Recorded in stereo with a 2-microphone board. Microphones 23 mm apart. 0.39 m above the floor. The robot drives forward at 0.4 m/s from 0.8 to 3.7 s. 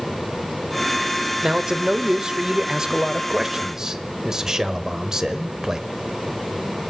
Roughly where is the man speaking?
Right.